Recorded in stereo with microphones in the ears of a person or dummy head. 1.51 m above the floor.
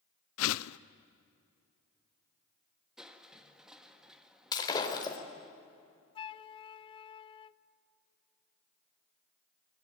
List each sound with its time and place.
0.4 s a whoosh: 75° left (ahead or behind), 0.6 m
3.0 s crushing: 5° right (ahead or behind), 1.8 m
4.5 s breaking glass: 20° left (ahead or behind), 3.5 m
6.2 s a flute: 25° left (ahead or behind), 0.6 m